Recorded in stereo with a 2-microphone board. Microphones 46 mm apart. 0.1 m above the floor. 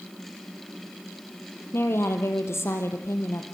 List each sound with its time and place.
1.7 s a woman speaking: 60° left (ahead or behind), 3 m; by 3.5 s 65° left (ahead or behind), 3.5 m